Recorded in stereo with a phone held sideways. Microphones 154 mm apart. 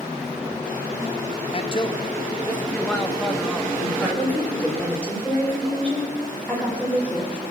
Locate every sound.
1.5 s a man speaking: 40° left (ahead or behind), 0.7 m; by 3.7 s centre (ahead or behind), 1.8 m
3.8 s a woman speaking: 10° left (ahead or behind), 5 m